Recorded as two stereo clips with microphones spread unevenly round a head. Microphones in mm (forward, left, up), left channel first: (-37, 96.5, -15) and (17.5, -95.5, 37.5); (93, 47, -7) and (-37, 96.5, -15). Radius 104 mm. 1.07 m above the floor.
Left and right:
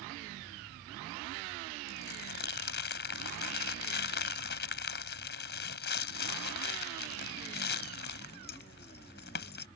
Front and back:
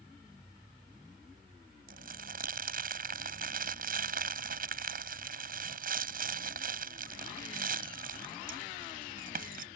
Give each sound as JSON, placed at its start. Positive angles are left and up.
{"t": 1.9, "sound": "crumpling", "azimuth_deg": 145}